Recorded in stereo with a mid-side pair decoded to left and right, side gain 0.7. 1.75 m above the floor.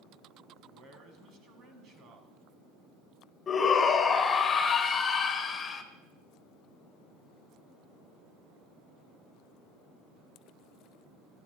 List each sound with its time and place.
0.7 s a man speaking: 50° right, 1.9 m
3.5 s a shout: 30° left, 0.9 m